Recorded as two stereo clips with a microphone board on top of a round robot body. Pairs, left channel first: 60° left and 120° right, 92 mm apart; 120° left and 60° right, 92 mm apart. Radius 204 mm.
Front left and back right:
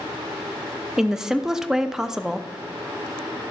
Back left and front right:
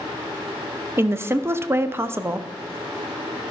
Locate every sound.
1.0 s a woman speaking: 40° right, 0.8 m